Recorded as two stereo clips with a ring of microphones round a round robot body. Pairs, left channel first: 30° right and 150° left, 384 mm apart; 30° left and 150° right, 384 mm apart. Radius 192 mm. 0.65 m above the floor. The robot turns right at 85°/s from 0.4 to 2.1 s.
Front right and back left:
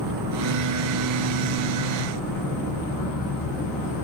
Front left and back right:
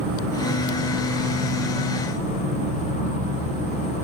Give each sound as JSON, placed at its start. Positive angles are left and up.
{"t": 0.0, "sound": "an insect", "azimuth_deg": 175, "distance_m": 6.5}